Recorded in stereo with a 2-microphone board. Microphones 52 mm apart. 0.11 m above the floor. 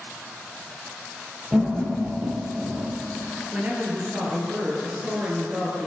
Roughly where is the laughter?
Centre.